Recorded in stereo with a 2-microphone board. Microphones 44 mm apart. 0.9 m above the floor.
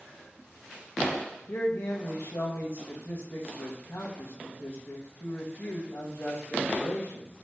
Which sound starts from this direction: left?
A man speaking, at 1.5 s.